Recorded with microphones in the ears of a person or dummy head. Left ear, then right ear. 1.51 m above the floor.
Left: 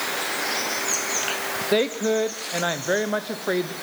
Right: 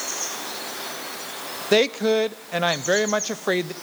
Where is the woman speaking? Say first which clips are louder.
Right 4 dB; 75° right (ahead or behind), 0.7 m.